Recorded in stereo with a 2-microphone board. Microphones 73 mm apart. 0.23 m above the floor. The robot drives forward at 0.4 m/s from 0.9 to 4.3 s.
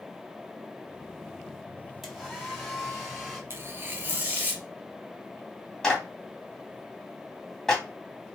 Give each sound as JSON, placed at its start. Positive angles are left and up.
{"t": 2.0, "sound": "a hair dryer", "side_deg": 0, "distance_m": 1.3}
{"t": 3.5, "sound": "tearing paper", "side_deg": -35, "distance_m": 0.7}
{"t": 5.8, "sound": "a clap", "side_deg": 5, "distance_m": 1.3}